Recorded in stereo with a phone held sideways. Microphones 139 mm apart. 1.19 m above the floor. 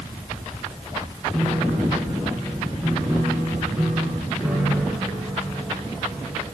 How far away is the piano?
About 3 m.